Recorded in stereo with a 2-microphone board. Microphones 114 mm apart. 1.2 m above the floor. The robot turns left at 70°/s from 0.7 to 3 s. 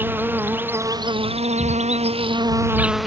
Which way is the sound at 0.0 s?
15° right.